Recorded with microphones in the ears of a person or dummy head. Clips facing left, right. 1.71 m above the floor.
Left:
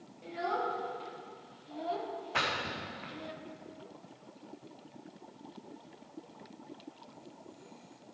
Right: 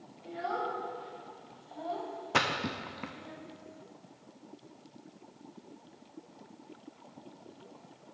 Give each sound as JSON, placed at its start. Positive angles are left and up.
{"t": 0.2, "sound": "a child speaking", "side_deg": 40, "distance_m": 3.0}
{"t": 2.3, "sound": "a splash", "side_deg": -50, "distance_m": 0.6}